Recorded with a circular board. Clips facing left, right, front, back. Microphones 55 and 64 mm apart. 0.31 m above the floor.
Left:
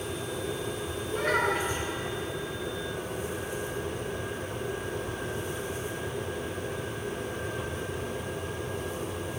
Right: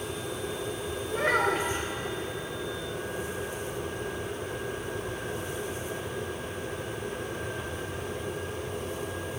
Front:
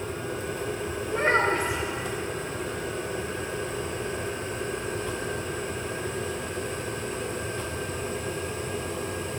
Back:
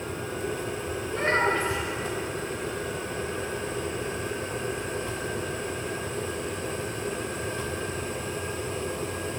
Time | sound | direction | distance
1.1 | a child speaking | 60° right | 0.7 m